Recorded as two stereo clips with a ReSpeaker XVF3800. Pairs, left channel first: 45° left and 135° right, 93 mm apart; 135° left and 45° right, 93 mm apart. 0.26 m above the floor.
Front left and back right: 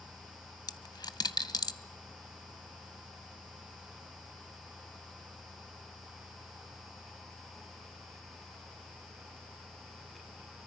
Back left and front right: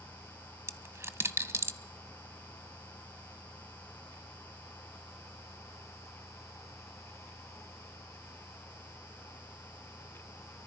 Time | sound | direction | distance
0.7 | a dropped coin | 15° left | 0.6 m